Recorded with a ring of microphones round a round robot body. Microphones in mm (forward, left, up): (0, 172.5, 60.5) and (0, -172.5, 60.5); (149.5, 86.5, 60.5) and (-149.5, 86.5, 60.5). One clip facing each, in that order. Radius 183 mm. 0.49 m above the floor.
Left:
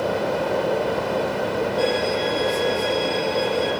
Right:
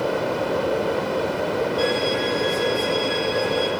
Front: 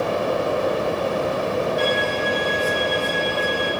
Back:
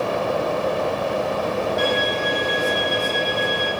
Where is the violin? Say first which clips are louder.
Even, even; 165° right, 5 m.